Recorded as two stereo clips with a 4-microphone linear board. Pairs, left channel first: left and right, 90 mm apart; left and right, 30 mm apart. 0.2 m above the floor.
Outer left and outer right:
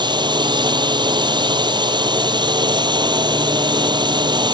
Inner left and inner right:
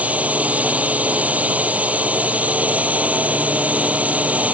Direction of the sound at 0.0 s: 55° right (ahead or behind).